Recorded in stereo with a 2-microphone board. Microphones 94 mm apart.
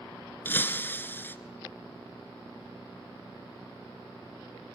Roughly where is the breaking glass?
Left.